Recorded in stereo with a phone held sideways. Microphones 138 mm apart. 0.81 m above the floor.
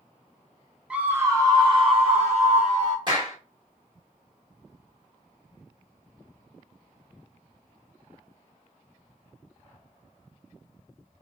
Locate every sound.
0.9 s a scream: 5° right (ahead or behind), 0.7 m; by 3.0 s 60° right (ahead or behind), 1.3 m
3.1 s a clap: 30° right (ahead or behind), 1.5 m